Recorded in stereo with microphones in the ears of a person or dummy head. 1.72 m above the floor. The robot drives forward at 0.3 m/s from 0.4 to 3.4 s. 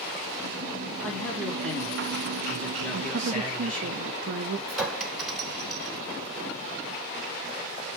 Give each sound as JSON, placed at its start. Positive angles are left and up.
{"t": 1.0, "sound": "a man speaking", "side_deg": 10, "distance_m": 3.5}
{"t": 2.9, "sound": "a woman speaking", "side_deg": -60, "distance_m": 0.7}
{"t": 4.7, "sound": "a clink", "side_deg": 0, "distance_m": 1.1}